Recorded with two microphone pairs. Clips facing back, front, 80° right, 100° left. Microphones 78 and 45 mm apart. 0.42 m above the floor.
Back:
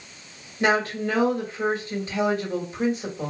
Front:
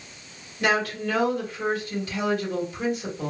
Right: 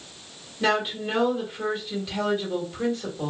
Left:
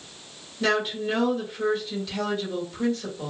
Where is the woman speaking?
145° right, 1.4 m.